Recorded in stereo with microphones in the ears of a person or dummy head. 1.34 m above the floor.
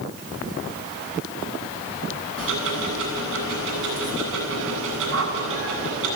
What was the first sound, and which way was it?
Ticking, 75° right (ahead or behind).